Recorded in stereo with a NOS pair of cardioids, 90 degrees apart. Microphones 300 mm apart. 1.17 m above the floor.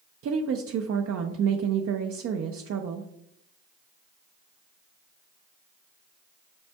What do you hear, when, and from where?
0.2 s a woman speaking: 55° right, 0.5 m